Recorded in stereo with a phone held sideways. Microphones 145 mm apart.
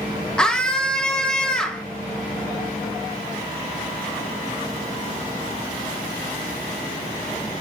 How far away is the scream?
About 0.8 m.